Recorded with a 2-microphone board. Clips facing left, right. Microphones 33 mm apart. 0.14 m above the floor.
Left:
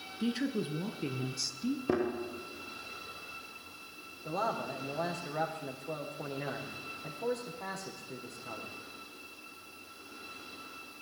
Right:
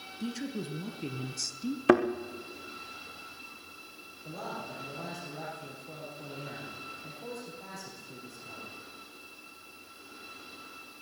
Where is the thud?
75° right (ahead or behind), 3 m.